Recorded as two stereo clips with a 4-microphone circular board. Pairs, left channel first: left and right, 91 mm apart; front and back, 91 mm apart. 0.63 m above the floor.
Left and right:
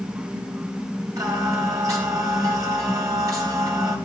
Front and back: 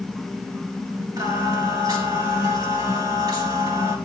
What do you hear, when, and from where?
1.2 s singing: 140° right, 4.5 m